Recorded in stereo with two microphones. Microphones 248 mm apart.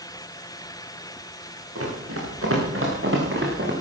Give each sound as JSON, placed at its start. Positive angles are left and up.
{"t": 1.8, "sound": "running footsteps", "side_deg": -70, "distance_m": 6.5}